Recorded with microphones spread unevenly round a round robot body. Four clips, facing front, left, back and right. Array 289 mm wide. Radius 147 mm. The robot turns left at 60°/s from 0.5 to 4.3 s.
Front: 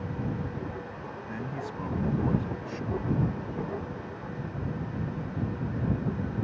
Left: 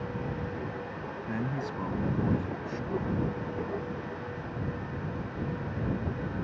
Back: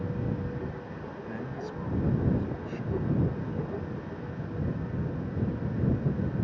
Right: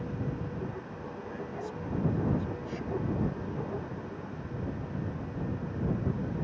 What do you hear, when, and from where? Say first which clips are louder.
1.3 s a man speaking: left 6 dB, front 1 dB; 80° left; by 3.0 s 25° right